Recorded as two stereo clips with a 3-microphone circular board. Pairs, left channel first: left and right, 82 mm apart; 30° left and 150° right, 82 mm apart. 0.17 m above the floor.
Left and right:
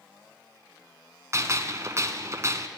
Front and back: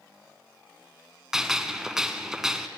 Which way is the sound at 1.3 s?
70° right.